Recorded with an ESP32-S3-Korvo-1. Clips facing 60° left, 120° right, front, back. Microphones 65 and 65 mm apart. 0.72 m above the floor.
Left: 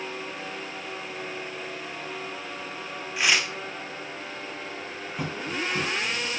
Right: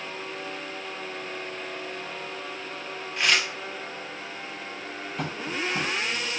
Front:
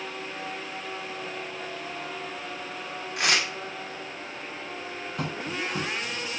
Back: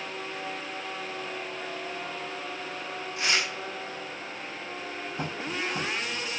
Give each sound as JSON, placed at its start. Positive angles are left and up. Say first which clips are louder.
{"t": 3.2, "sound": "tearing paper", "louder": "even, front 3 dB", "azimuth_deg": -25, "distance_m": 1.6}
{"t": 5.2, "sound": "tapping", "louder": "even, front 1 dB", "azimuth_deg": -25, "distance_m": 4.0}